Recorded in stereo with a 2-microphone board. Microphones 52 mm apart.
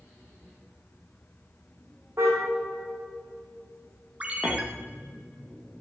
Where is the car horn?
60° right (ahead or behind), 5 m.